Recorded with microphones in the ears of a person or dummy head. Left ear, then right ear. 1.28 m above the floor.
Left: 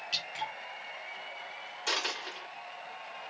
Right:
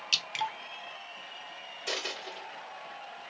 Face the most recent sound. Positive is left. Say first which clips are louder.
# left 3 dB
turn(degrees=25)  # may be behind; listen again after turning